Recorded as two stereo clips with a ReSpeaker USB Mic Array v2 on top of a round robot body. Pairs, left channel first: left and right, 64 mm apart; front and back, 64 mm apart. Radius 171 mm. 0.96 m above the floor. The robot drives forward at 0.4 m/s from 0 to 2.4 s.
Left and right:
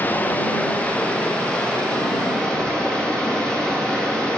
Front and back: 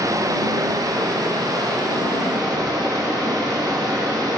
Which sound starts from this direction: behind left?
Running water, at 0.0 s.